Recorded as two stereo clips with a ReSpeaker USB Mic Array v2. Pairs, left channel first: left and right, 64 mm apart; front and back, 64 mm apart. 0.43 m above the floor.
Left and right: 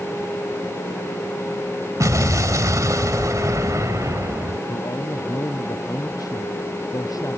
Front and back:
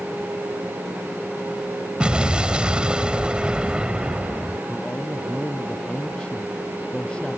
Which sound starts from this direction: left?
A man speaking, at 4.7 s.